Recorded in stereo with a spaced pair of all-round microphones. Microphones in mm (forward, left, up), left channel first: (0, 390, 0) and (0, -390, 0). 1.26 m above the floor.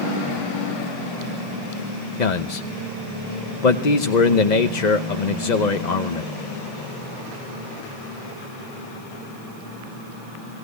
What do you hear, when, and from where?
2.2 s a man speaking: 65° left (ahead or behind), 1.0 m